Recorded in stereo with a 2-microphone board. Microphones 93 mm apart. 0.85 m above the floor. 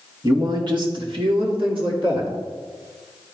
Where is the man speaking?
45° right (ahead or behind), 1.4 m; by 2.3 s 75° right (ahead or behind), 2.5 m.